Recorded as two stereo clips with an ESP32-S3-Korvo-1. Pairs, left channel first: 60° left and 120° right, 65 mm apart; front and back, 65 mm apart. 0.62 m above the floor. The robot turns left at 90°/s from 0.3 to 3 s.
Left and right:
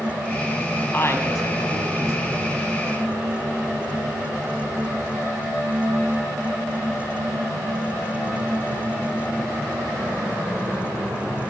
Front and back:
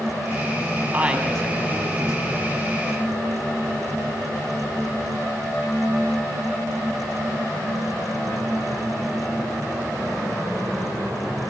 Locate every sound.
0.9 s a woman speaking: 120° left, 4.5 m; by 2.5 s 20° right, 4.5 m